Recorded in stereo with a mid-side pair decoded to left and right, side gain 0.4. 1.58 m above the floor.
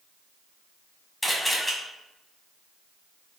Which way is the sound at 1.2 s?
5° left.